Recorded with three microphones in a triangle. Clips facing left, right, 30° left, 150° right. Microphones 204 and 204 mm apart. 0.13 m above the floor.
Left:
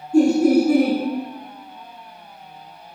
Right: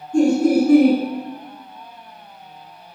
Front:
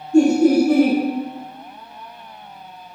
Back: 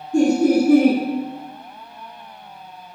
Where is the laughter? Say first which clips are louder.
Left 1 dB, front 2 dB; 160° left, 1.2 m.